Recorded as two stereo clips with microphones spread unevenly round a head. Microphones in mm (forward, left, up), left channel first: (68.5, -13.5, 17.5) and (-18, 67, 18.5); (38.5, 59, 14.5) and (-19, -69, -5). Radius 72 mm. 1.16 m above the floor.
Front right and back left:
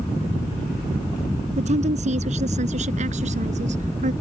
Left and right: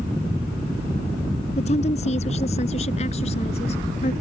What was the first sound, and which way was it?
A woman speaking, 110° left.